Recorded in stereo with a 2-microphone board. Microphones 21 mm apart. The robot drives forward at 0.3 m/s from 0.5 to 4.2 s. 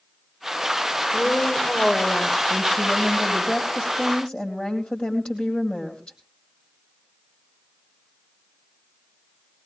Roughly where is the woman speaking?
Left.